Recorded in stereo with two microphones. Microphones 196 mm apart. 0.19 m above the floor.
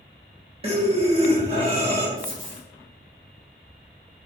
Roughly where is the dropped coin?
Right.